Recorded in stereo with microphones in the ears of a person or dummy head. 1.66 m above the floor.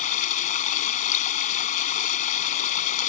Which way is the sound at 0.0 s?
50° left (ahead or behind).